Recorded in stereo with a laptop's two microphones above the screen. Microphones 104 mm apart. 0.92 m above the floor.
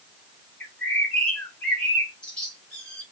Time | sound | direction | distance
0.6 | a bird | 10° left (ahead or behind) | 1.2 m